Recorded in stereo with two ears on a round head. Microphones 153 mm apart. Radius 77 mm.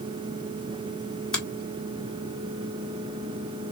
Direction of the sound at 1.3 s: 5° left (ahead or behind).